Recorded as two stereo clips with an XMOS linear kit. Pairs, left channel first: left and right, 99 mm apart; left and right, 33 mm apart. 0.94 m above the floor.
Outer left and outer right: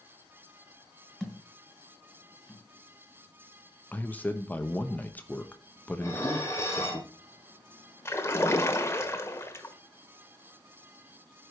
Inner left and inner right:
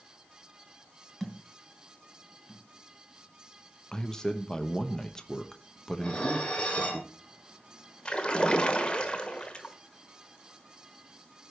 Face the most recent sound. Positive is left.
turn(degrees=25)  # may be behind; listen again after turning